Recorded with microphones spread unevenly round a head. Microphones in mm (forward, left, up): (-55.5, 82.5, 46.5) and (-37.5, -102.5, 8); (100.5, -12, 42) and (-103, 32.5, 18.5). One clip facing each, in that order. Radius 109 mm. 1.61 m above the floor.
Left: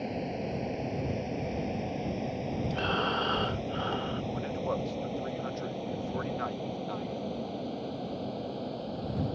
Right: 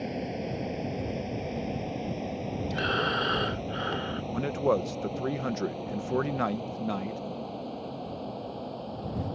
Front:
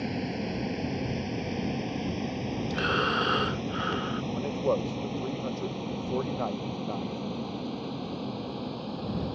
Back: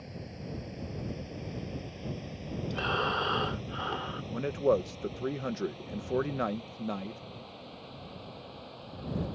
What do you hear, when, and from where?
0.0 s a vehicle: straight ahead; by 9.3 s 20° left
2.7 s breathing: straight ahead
4.3 s a man speaking: 115° right